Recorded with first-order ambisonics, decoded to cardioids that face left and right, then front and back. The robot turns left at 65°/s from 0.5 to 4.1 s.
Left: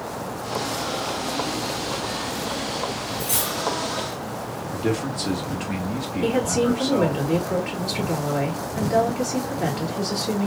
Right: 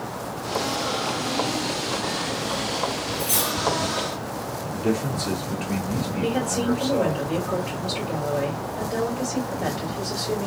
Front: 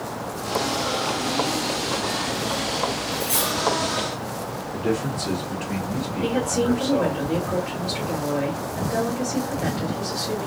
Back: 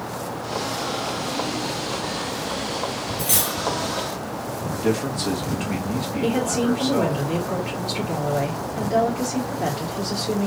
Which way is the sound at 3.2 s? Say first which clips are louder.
Right 2 dB, back 1 dB; 165° right.